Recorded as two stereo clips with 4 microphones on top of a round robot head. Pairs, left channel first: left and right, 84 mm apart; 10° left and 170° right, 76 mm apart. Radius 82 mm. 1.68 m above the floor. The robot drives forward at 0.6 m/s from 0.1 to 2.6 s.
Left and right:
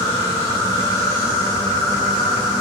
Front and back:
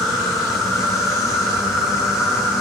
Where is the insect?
100° left, 10 m; by 2.6 s 110° left, 10.5 m.